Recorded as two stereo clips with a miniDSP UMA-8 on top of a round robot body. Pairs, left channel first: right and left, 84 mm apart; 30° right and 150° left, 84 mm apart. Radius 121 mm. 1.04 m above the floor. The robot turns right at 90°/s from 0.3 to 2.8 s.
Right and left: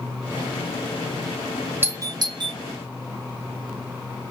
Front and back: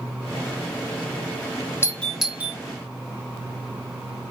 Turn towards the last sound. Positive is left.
turn(degrees=115)